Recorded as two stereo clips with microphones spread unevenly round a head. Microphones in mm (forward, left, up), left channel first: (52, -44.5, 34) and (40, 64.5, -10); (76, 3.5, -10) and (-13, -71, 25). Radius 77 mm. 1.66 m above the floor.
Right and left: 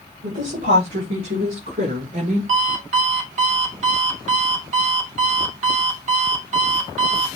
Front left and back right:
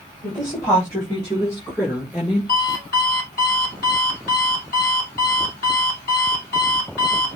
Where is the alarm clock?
85° left, 2.5 m.